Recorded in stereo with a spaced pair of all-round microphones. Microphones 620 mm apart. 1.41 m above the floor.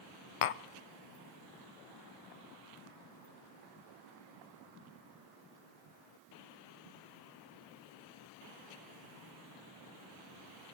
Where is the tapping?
60° left (ahead or behind), 0.5 m.